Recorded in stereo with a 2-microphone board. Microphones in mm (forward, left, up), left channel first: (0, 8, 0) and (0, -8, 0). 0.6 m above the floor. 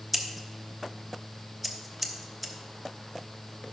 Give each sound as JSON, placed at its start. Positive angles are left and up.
{"t": 0.1, "sound": "scissors", "side_deg": -10, "distance_m": 1.1}